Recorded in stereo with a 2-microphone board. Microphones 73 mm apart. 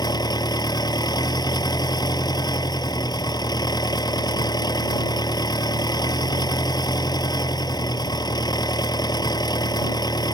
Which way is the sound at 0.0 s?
80° left.